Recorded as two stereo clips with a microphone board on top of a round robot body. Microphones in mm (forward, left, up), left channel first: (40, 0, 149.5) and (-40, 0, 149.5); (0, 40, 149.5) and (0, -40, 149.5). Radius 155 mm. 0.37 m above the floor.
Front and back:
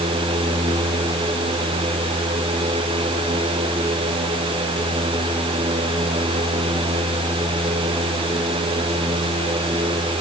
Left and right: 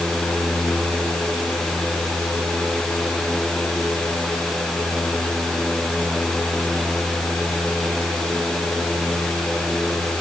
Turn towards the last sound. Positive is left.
No sound to turn to.